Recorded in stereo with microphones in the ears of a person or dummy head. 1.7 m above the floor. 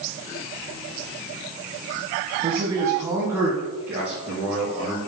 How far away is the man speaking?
About 0.7 m.